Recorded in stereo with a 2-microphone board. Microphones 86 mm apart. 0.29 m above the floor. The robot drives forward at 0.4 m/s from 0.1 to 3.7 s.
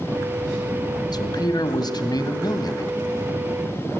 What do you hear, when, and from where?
1.1 s a man speaking: 50° left (ahead or behind), 1.7 m